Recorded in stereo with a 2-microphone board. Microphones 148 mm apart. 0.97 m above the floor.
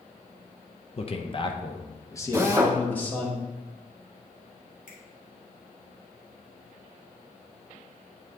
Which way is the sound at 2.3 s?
20° right (ahead or behind).